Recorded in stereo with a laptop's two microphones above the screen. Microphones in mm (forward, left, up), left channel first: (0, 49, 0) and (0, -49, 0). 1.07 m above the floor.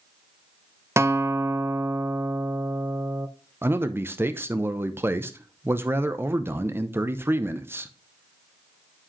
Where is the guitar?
30° right (ahead or behind), 0.6 m.